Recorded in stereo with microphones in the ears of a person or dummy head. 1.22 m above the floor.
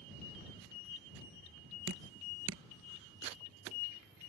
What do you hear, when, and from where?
1.9 s dripping: 60° right (ahead or behind)